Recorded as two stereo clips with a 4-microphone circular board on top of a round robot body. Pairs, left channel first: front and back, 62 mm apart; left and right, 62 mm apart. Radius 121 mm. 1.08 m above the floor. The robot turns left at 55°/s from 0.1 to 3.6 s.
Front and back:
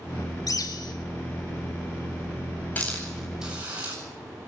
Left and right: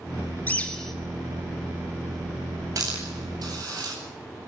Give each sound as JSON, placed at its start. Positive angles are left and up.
{"t": 0.5, "sound": "a bird", "azimuth_deg": 25, "distance_m": 3.0}
{"t": 2.8, "sound": "a hiss", "azimuth_deg": -65, "distance_m": 9.0}